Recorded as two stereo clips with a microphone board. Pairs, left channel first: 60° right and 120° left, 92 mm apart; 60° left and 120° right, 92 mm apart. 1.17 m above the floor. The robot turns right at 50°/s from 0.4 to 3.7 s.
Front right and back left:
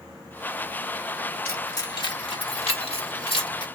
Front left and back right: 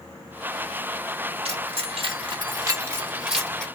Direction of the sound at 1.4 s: 130° right.